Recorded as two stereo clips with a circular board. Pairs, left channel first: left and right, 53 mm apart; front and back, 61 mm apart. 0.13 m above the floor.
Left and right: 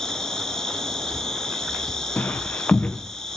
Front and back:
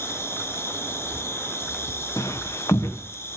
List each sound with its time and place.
0.0 s an insect: 15° left, 1.3 m
2.2 s footsteps: 30° left, 1.3 m